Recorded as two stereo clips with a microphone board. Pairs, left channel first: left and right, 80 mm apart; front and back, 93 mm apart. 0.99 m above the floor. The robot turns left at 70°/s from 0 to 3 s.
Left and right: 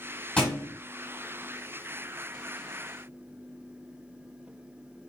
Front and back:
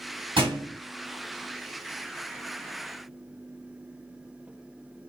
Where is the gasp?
No gasp in this recording.